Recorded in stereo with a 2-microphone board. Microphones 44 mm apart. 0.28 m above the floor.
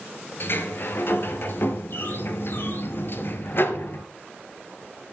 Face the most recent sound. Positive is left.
turn(degrees=55)  # may be behind; listen again after turning